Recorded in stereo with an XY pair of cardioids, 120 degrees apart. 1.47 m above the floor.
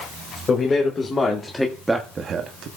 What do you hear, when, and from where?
0.5 s a man speaking: 30° left, 3 m; by 2.7 s 75° right, 1.5 m